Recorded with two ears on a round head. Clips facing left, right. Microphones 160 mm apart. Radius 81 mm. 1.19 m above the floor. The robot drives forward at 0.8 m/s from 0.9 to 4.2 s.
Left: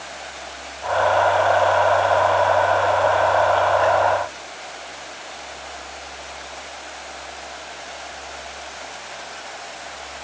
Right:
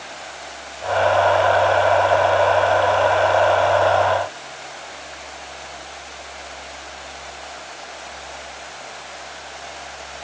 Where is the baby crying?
No baby crying in this recording.